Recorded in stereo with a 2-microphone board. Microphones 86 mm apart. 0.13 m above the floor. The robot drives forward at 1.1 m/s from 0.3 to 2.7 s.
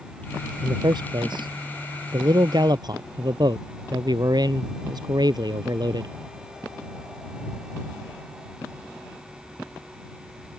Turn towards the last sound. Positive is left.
turn(degrees=-50)  # may be behind; listen again after turning